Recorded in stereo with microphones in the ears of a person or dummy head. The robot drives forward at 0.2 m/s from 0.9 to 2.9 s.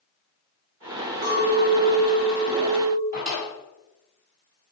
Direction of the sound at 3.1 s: 35° right (ahead or behind).